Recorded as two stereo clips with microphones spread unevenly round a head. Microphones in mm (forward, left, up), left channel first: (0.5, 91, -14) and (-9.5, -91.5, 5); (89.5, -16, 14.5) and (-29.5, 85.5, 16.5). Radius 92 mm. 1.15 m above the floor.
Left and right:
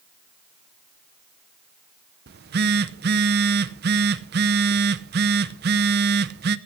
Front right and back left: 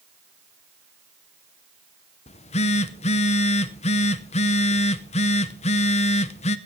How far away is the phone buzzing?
About 0.7 m.